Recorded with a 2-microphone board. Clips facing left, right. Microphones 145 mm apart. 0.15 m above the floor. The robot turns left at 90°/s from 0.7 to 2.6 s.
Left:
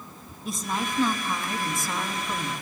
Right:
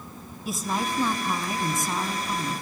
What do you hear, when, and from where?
0.5 s a woman speaking: 5° right (ahead or behind), 1.0 m